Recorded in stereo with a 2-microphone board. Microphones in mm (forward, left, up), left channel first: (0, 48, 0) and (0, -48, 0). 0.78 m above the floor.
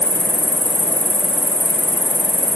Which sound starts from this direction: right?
An insect, at 0.0 s.